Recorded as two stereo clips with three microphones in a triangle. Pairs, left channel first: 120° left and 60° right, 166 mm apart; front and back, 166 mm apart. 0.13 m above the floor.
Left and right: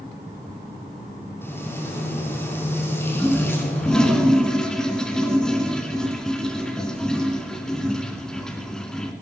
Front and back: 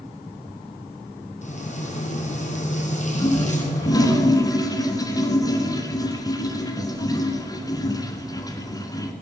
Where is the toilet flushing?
40° left, 1.6 m.